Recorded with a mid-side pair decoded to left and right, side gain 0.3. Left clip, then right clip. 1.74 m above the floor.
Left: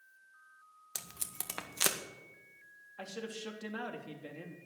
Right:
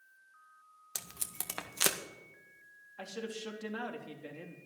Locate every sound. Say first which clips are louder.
0.9 s tape being pulled: right 1 dB; 10° right, 1.8 m
3.0 s a man speaking: right 1 dB; 5° right, 3 m